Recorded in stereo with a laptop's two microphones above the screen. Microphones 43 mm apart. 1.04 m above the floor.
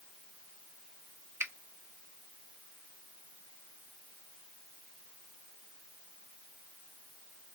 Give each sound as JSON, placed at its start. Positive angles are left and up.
{"t": 1.4, "sound": "a finger snap", "side_deg": -80, "distance_m": 0.5}